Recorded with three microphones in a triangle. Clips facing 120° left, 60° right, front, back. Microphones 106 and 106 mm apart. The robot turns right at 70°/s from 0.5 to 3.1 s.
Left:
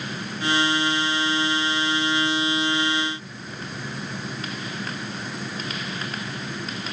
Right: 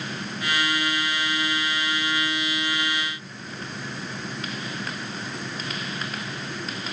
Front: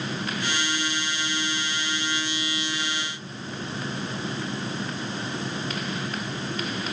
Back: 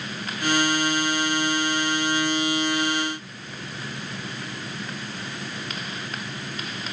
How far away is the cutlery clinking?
No cutlery clinking in this recording.